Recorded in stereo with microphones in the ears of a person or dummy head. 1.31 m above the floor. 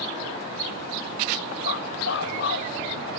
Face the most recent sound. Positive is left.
turn(degrees=60)  # may be behind; listen again after turning